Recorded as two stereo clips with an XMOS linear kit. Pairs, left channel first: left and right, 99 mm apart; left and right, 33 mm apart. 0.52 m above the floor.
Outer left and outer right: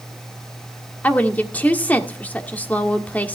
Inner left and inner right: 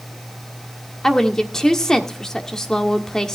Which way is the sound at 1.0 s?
15° left (ahead or behind).